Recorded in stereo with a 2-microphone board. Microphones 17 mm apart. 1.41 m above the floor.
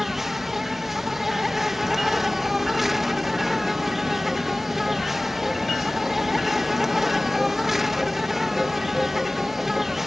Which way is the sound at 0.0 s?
25° right (ahead or behind).